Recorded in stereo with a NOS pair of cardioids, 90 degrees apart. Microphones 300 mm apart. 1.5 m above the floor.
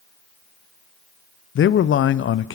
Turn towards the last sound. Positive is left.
turn(degrees=45)